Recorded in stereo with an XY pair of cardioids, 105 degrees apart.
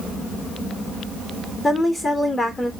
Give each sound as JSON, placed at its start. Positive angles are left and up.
{"t": 1.6, "sound": "a woman speaking", "azimuth_deg": 15, "distance_m": 3.0}